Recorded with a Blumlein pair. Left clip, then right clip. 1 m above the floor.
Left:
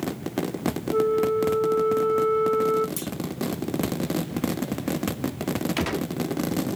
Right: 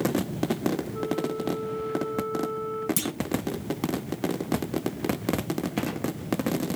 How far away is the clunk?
About 0.7 m.